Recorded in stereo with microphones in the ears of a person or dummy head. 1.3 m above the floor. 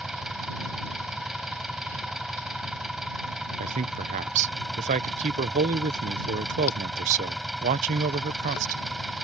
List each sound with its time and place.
0.0 s an engine running: centre (ahead or behind)
3.6 s a man speaking: 40° right (ahead or behind)